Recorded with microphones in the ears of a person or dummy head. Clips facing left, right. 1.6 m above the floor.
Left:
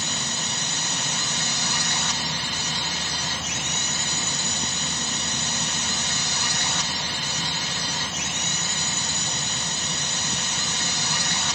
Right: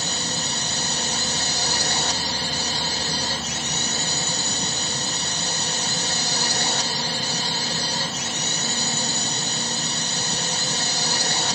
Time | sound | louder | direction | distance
0.0 | a drone | right 3 dB | 35° right (ahead or behind) | ?